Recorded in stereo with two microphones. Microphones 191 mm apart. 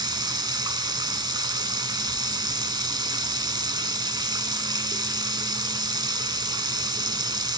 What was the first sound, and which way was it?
Running water, 25° right (ahead or behind).